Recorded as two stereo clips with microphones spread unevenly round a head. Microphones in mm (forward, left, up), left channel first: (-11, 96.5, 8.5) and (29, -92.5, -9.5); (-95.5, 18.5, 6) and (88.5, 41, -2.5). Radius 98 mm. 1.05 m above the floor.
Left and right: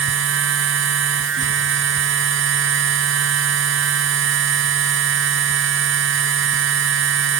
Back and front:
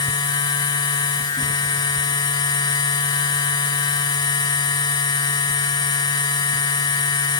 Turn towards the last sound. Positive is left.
turn(degrees=-105)